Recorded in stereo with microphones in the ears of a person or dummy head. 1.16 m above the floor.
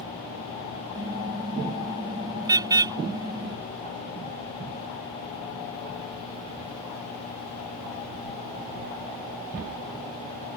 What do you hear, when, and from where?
0.9 s a car horn: 20° right (ahead or behind)